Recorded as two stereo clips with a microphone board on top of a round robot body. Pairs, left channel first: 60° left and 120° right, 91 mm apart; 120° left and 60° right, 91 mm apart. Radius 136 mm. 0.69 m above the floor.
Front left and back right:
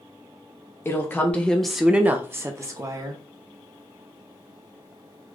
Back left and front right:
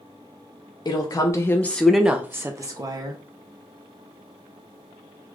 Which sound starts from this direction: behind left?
A woman speaking, at 0.8 s.